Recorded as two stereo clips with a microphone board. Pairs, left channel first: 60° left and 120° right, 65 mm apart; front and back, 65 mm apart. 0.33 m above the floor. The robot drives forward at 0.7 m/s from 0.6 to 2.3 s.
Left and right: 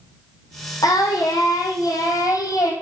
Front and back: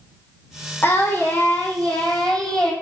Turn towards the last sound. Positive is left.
turn(degrees=80)